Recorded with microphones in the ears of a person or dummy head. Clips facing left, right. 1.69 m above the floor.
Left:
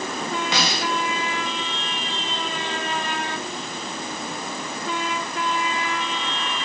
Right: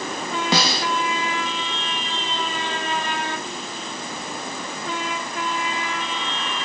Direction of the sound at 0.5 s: 35° right (ahead or behind).